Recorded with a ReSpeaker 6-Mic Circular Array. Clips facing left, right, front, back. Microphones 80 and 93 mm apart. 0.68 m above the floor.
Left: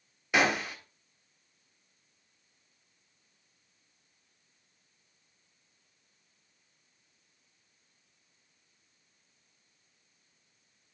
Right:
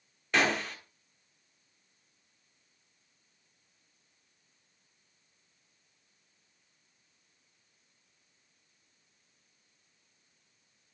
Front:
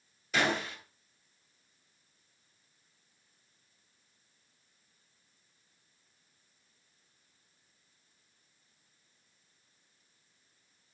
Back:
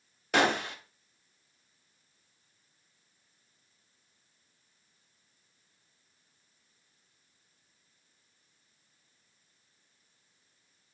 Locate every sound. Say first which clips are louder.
0.3 s a gunshot: left 1 dB, back 4 dB; 170° left, 1.4 m